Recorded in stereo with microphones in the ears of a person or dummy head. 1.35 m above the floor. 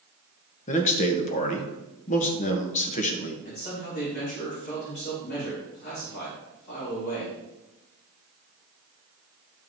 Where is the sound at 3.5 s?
55° left (ahead or behind), 3.5 m.